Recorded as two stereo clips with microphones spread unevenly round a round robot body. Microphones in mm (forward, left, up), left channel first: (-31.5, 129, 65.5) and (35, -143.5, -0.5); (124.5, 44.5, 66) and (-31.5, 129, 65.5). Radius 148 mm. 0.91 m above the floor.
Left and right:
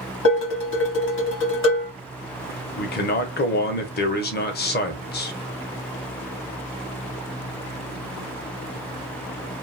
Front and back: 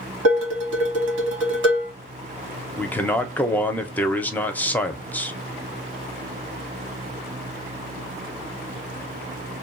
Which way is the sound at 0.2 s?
155° left.